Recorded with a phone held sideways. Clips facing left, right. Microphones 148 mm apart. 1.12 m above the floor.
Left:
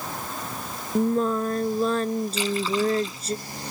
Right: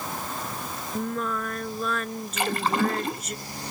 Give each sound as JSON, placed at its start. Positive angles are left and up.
{"t": 0.9, "sound": "singing", "side_deg": 30}
{"t": 2.4, "sound": "a splash", "side_deg": -60}